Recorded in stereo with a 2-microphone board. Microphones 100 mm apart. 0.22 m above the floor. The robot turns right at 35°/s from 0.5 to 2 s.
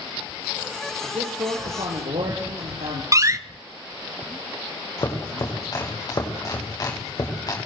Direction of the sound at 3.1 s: 30° right (ahead or behind).